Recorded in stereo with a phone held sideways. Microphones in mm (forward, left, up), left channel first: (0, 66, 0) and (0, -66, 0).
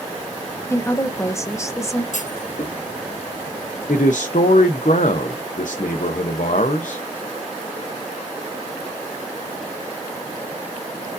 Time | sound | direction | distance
0.7 | a woman speaking | 20° left (ahead or behind) | 0.7 m
2.1 | a clunk | 65° left (ahead or behind) | 0.8 m
3.9 | a man speaking | 70° left (ahead or behind) | 0.6 m